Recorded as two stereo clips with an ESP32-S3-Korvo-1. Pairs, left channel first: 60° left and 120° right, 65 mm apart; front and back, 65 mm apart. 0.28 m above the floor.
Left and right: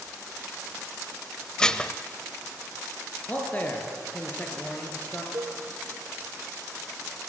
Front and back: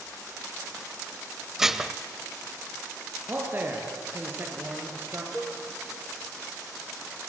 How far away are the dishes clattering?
About 0.8 m.